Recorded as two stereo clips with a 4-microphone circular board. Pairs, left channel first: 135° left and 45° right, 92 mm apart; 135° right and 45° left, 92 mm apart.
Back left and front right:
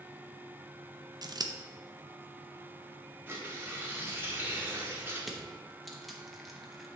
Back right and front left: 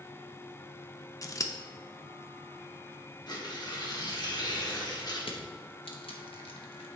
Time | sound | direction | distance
1.2 | scissors | 85° right | 0.5 m
3.3 | tearing paper | 105° right | 1.3 m
5.2 | crushing | 135° right | 0.9 m